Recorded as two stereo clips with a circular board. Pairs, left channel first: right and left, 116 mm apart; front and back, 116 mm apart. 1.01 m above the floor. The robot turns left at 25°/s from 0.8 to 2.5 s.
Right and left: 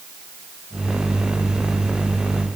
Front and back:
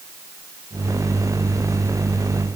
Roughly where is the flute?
No flute in this recording.